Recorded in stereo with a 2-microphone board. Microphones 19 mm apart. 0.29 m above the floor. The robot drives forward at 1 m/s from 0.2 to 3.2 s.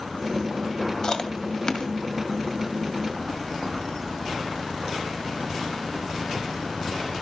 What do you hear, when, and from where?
1.0 s chewing: 40° left (ahead or behind), 1.8 m